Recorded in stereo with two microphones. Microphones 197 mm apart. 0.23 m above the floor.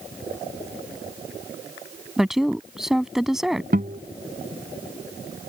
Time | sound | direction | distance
2.2 | a woman speaking | centre (ahead or behind) | ?
3.7 | a guitar | 50° right (ahead or behind) | ?